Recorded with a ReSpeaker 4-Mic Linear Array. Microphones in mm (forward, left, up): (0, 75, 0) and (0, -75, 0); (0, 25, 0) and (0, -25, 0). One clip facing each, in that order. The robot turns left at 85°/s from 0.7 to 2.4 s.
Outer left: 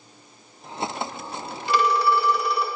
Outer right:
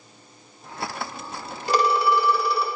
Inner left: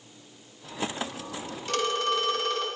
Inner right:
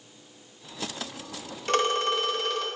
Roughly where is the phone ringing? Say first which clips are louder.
Even, inner right 2 dB; behind right.